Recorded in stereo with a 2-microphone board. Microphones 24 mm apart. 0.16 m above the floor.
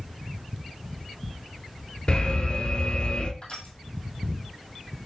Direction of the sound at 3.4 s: 40° left (ahead or behind).